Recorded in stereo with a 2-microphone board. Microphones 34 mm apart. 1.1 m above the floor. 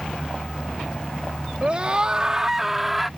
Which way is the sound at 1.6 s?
35° right (ahead or behind).